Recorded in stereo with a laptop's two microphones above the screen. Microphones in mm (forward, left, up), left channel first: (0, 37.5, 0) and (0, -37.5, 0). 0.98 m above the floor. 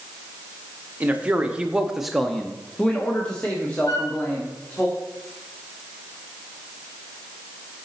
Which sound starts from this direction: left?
A flute, at 3.9 s.